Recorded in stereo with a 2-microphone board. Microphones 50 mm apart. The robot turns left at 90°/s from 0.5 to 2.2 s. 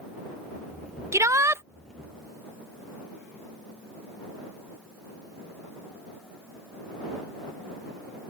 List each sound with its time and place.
1.1 s a shout: 75° right; by 1.6 s 125° right